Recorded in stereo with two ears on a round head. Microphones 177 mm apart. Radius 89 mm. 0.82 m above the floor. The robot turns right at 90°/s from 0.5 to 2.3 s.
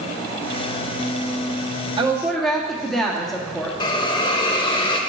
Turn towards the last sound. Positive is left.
turn(degrees=25)  # may be behind; listen again after turning